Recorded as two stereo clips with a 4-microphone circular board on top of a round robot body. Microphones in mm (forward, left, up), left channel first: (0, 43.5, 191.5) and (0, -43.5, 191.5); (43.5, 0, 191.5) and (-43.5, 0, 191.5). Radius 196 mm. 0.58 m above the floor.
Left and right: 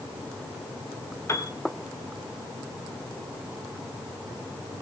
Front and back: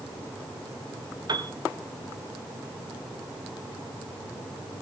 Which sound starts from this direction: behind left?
A piano, at 1.3 s.